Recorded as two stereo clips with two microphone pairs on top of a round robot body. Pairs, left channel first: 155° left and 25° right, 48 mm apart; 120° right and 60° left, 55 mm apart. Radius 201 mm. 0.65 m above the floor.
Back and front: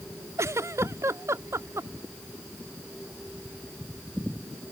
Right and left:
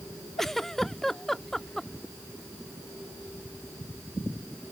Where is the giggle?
35° right.